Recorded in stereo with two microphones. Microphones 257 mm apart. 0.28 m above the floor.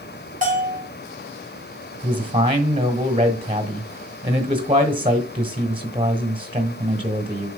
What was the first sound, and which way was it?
A bell, 30° right (ahead or behind).